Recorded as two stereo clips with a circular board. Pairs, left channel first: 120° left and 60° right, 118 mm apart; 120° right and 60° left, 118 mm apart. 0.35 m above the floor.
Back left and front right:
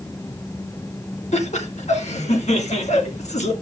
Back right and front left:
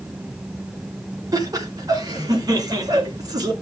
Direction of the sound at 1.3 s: 115° left.